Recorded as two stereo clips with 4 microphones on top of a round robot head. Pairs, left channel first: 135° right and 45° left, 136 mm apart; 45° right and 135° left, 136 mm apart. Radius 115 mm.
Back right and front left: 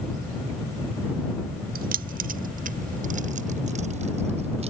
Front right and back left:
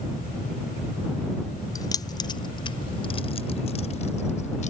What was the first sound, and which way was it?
Keys jangling, 20° left.